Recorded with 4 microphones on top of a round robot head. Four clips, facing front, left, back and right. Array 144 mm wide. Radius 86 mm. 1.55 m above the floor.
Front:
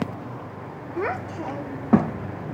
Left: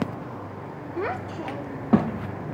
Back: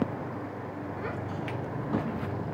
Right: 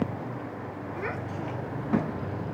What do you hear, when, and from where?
1.0 s a child speaking: 30° left, 1.4 m